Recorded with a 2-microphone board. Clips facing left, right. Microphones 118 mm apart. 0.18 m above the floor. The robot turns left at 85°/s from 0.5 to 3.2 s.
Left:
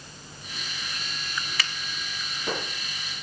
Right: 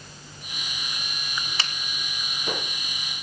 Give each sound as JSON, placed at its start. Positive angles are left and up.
{"t": 1.6, "sound": "a finger snap", "side_deg": -30, "distance_m": 1.1}